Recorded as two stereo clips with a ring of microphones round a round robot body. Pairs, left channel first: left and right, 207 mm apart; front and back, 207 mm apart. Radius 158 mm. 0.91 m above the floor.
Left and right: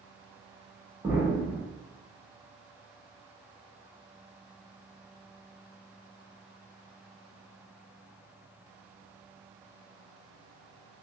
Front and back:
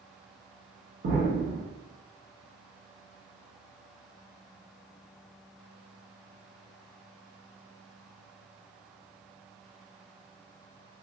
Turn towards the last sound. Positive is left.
turn(degrees=-170)